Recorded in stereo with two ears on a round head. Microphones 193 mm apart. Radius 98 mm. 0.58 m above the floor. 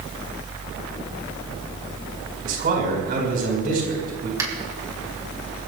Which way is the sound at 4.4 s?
15° right (ahead or behind).